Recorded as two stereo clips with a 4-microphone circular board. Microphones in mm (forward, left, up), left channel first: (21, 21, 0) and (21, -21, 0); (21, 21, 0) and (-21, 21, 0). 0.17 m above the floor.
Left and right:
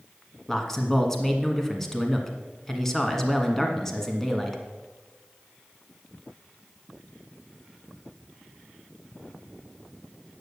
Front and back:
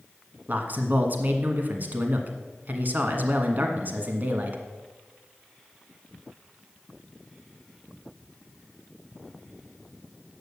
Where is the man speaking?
165° left, 1.4 m.